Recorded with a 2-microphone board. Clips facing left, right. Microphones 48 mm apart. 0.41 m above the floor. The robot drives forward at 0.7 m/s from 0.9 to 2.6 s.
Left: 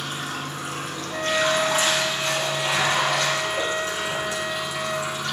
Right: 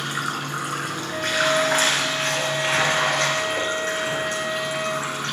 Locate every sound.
0.0 s running water: 70° right (ahead or behind), 2.5 m; by 5.3 s 50° right (ahead or behind), 3 m
1.1 s a flute: 5° right (ahead or behind), 1.8 m; by 5.1 s 15° right (ahead or behind), 1.0 m